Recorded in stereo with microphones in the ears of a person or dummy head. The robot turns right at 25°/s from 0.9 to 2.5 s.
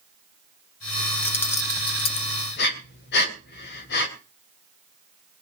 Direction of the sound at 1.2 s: 10° left (ahead or behind).